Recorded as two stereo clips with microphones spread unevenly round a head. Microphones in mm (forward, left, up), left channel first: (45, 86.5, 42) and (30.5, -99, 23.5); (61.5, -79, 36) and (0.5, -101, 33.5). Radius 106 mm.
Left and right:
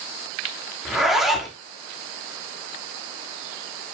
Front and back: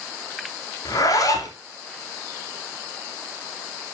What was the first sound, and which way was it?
A zipper, 5° right.